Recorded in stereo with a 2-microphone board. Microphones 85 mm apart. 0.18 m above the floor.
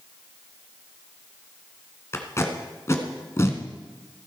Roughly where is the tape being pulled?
Left.